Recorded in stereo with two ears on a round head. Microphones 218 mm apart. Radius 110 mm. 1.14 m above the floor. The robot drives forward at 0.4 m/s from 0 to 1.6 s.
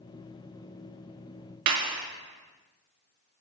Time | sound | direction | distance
1.7 | a clap | 90° right | 1.4 m